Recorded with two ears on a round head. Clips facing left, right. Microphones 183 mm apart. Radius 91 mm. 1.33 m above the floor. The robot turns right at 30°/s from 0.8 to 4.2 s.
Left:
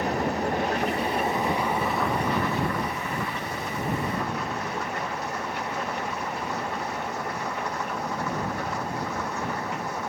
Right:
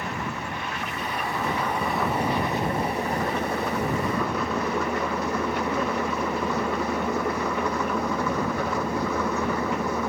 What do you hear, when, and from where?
0.0 s an engine running: 145° left; by 10.1 s 115° right